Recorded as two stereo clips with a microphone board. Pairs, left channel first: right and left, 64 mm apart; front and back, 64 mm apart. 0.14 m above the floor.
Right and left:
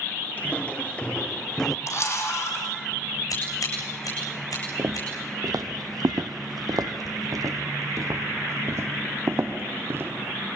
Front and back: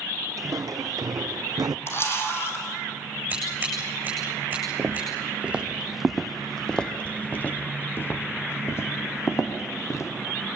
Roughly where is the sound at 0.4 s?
Behind right.